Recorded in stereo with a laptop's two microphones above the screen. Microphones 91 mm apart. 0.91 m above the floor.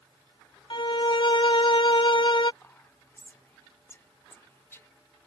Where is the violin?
55° left (ahead or behind).